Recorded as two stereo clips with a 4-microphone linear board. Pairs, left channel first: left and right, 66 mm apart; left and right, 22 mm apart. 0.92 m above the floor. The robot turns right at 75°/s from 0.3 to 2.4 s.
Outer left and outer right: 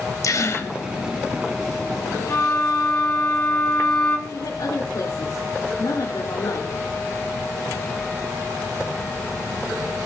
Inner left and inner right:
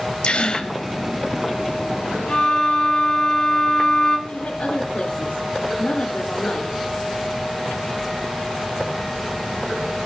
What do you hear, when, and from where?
0.2 s a gasp: 110° left, 1.1 m; by 0.7 s 140° left, 1.1 m
2.3 s a violin: 45° left (ahead or behind), 5.5 m; by 4.2 s 50° left (ahead or behind), 5.5 m
4.3 s a woman speaking: 80° left, 3.5 m